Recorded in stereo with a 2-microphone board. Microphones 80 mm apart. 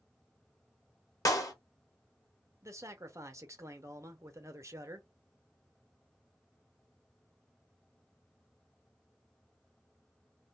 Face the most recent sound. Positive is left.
turn(degrees=-35)  # may be behind; listen again after turning